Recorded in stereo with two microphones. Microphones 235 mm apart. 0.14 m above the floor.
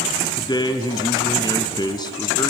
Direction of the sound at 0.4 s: 15° left (ahead or behind).